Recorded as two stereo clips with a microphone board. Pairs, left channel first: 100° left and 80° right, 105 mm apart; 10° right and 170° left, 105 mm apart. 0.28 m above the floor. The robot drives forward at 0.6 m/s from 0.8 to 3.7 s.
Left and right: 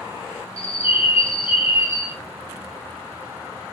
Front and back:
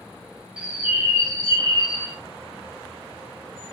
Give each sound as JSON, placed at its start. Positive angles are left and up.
{"t": 0.6, "sound": "a bird", "azimuth_deg": 90, "distance_m": 0.8}